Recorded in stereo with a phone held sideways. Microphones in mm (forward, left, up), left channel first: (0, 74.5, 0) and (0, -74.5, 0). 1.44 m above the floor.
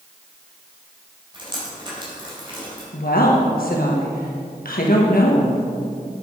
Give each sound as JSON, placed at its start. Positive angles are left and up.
{"t": 1.3, "sound": "dripping", "side_deg": -30, "distance_m": 4.0}
{"t": 2.9, "sound": "a woman speaking", "side_deg": 80, "distance_m": 1.4}